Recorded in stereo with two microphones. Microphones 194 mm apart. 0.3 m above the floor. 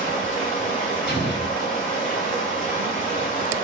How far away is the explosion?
About 1.4 m.